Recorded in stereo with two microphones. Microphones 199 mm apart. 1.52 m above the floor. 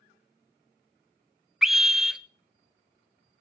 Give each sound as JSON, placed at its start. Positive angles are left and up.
{"t": 1.6, "sound": "a scream", "side_deg": 0, "distance_m": 0.7}